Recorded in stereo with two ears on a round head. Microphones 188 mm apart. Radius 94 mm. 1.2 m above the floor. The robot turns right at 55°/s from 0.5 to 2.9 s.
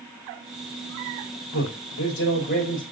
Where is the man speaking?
80° left, 3.5 m; by 2.8 s 150° left, 3.5 m.